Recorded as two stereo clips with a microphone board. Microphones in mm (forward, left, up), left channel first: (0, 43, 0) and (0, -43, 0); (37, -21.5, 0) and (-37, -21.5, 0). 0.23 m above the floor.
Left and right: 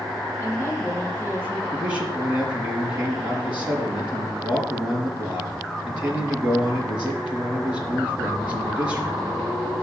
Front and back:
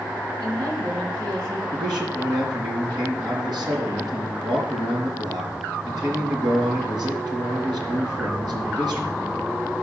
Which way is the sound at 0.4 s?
155° left.